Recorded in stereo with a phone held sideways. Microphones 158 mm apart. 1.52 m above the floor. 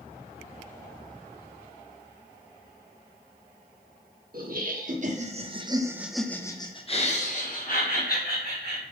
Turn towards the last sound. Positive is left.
turn(degrees=70)  # may be behind; listen again after turning